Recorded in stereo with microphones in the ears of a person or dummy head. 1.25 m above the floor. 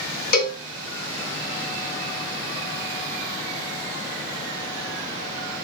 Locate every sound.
0.3 s a cowbell: 50° left (ahead or behind), 0.6 m